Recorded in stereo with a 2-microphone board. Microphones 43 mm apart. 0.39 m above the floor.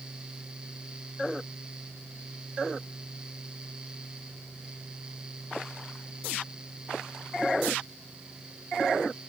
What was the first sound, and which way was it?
Only background noise.